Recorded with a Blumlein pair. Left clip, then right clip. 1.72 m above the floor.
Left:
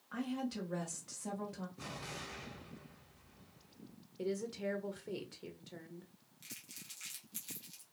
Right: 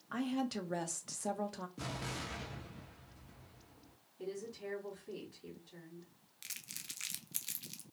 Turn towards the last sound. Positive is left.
turn(degrees=-25)